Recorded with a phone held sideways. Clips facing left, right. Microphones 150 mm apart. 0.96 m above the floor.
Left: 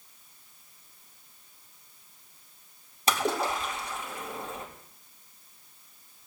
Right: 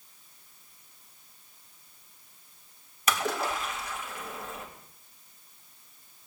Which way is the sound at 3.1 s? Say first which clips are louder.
Left 2 dB; 30° left (ahead or behind).